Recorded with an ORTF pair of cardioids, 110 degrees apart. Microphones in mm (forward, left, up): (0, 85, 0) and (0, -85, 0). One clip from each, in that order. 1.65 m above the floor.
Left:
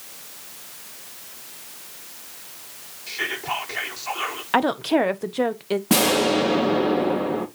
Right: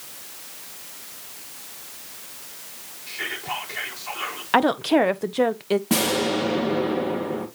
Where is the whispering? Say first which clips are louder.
Left 3 dB; 35° left, 4 m.